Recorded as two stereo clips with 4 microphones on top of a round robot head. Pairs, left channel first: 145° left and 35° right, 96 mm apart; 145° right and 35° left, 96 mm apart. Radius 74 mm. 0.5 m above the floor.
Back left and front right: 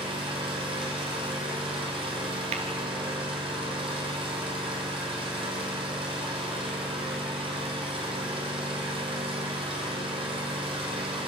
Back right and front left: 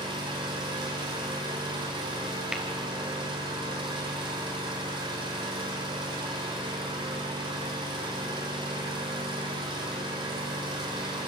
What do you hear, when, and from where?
0.0 s an engine running: 5° right, 5.5 m
2.5 s tapping: 45° right, 2 m